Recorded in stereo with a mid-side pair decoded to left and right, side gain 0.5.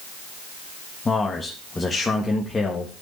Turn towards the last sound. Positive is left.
turn(degrees=25)